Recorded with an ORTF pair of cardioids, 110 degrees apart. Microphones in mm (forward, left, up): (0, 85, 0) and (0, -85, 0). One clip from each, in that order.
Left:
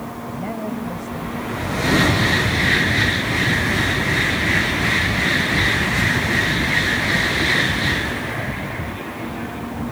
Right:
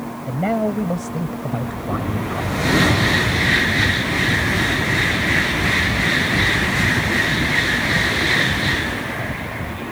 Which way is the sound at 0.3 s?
50° right.